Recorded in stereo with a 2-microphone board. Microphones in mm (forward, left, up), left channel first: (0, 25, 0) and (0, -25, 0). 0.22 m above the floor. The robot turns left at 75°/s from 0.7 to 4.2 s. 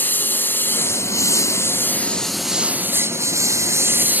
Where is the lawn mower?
40° left (ahead or behind); by 4.2 s 30° right (ahead or behind).